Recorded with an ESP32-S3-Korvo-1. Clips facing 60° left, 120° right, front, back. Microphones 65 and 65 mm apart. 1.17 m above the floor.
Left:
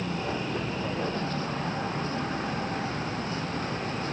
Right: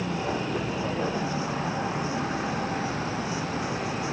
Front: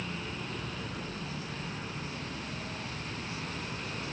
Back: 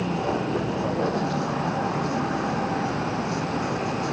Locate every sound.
0.0 s a vehicle: 160° left